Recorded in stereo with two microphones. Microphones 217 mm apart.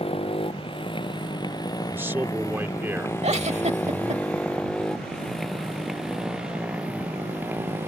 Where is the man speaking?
10° right (ahead or behind).